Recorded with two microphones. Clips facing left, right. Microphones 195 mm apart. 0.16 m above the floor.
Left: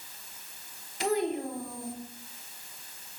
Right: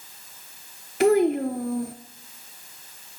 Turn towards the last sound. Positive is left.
turn(degrees=-65)  # may be behind; listen again after turning